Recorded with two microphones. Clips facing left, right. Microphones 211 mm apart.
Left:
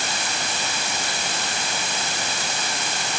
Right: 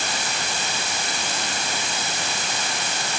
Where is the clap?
I don't hear a clap.